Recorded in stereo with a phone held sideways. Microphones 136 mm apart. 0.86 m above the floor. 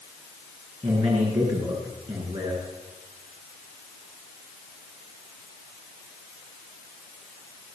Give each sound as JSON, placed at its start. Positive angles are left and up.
{"t": 0.8, "sound": "a man speaking", "side_deg": -50, "distance_m": 9.0}